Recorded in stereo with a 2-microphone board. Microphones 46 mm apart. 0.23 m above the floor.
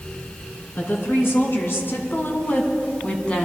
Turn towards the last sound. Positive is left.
turn(degrees=25)  # may be behind; listen again after turning